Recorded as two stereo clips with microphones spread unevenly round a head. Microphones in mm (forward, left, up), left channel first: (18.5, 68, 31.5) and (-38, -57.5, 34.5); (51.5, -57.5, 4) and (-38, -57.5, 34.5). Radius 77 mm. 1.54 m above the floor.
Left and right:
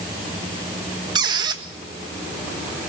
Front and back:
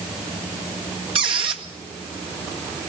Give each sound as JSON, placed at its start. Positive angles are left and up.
{"t": 1.1, "sound": "a squeak", "azimuth_deg": -175, "distance_m": 1.6}